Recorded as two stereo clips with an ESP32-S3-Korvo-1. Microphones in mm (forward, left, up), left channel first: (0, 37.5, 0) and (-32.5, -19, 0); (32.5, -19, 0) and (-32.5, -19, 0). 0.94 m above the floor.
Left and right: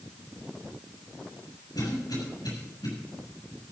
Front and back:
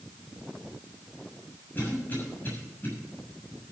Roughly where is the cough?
Ahead left.